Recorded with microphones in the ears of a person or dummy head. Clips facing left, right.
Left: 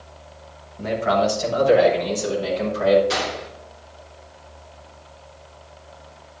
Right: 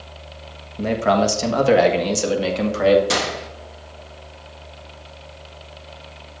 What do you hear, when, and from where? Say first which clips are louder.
0.8 s a man speaking: right 2 dB; 45° right (ahead or behind), 1.4 m; by 3.0 s 80° right, 2 m
3.1 s a gunshot: right 2 dB; 60° right (ahead or behind), 1.1 m